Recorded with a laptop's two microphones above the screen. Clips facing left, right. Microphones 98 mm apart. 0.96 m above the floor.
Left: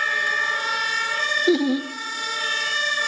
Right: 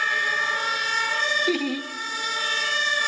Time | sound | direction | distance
1.5 | laughter | 20° left (ahead or behind) | 0.6 m